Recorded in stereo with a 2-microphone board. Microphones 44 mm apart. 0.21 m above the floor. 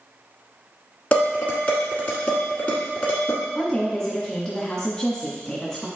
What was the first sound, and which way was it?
Dishes clattering, 30° left (ahead or behind).